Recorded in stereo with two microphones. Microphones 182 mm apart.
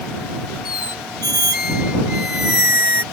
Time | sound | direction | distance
0.7 | a squeak | 55° left (ahead or behind) | ?